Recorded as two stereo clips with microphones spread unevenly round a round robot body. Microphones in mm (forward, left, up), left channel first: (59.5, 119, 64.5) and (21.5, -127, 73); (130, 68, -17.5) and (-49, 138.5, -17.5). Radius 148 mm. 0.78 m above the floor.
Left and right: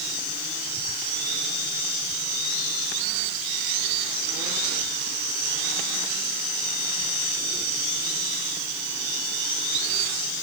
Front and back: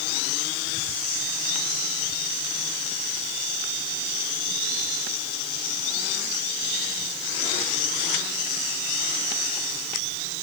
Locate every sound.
Only background noise.